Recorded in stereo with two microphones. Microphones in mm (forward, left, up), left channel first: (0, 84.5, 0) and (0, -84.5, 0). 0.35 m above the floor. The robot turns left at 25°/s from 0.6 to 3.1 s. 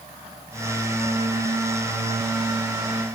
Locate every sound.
Only background noise.